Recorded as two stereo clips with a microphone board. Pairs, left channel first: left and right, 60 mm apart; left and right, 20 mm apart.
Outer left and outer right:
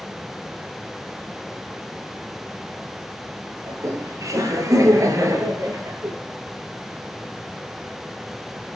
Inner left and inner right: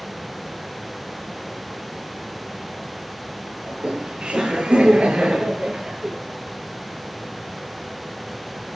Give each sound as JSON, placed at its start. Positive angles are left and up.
{"t": 3.7, "sound": "laughter", "side_deg": -70, "distance_m": 9.5}